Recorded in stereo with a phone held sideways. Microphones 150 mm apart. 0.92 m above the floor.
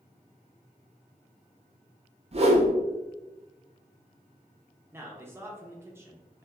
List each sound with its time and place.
2.3 s a whoosh: 45° right (ahead or behind), 0.5 m
4.9 s a man speaking: 15° right (ahead or behind), 0.5 m